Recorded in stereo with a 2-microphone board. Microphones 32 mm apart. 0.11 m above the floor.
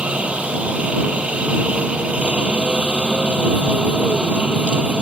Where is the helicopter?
40° right (ahead or behind).